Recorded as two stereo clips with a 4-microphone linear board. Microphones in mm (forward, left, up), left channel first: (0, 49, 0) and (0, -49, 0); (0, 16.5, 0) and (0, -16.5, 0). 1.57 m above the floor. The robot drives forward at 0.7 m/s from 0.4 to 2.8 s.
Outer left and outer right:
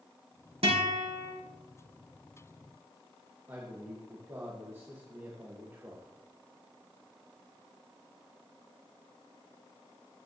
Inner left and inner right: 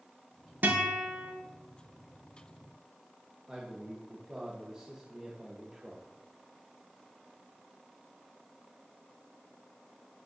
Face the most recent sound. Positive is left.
turn(degrees=-25)  # may be behind; listen again after turning